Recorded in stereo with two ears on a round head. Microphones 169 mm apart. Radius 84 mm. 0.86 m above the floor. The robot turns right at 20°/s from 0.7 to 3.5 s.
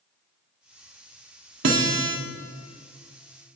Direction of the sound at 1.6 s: 70° right (ahead or behind).